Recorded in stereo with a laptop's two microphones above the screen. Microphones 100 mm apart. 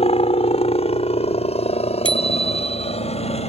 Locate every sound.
0.0 s a helicopter: 65° left (ahead or behind); by 3.5 s 75° left (ahead or behind)
2.0 s a bicycle bell: 55° right (ahead or behind)